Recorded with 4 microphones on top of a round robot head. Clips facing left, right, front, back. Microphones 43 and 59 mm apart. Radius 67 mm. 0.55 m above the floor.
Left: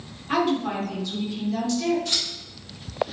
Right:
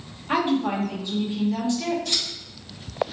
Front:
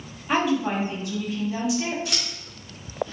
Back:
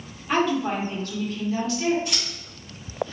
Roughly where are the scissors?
Ahead.